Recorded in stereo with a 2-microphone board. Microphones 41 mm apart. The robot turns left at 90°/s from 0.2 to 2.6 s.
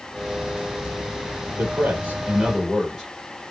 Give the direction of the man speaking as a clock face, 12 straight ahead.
3 o'clock.